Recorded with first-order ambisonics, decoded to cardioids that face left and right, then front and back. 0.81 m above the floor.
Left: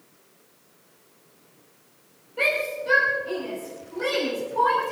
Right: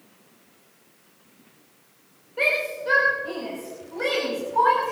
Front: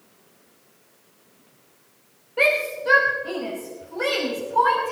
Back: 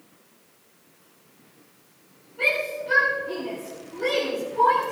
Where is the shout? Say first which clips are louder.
Right 1 dB, front 4 dB; 5° right, 3.5 m; by 4.9 s 30° right, 5.5 m.